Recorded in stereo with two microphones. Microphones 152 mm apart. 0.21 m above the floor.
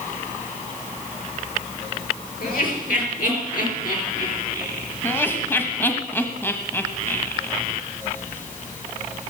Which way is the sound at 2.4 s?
70° left (ahead or behind).